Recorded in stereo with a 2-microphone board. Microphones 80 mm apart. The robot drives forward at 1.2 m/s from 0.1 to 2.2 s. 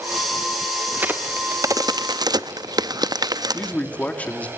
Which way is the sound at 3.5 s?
15° left (ahead or behind).